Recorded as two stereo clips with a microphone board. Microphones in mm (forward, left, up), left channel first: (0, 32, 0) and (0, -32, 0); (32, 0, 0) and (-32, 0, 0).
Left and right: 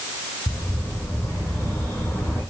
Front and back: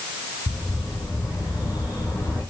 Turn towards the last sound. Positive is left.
turn(degrees=30)